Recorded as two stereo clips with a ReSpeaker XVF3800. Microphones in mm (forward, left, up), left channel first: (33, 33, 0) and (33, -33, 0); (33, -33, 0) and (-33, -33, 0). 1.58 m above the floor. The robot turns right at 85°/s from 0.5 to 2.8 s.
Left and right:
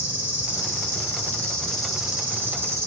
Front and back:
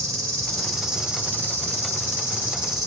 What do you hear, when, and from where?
0.0 s an insect: 70° left, 1.8 m; by 2.9 s 95° right, 1.8 m